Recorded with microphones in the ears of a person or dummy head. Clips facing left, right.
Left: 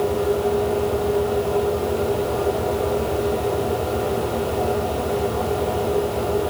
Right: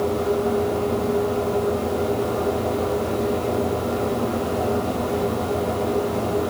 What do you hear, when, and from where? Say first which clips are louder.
0.0 s a fan: left 1 dB; 60° right (ahead or behind), 4.5 m